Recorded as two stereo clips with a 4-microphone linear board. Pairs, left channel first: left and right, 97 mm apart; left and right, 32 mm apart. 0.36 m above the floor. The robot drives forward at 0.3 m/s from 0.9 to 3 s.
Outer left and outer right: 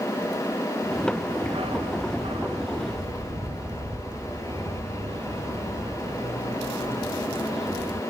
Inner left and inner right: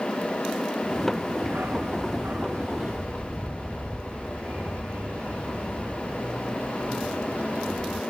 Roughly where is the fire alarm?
I don't hear a fire alarm.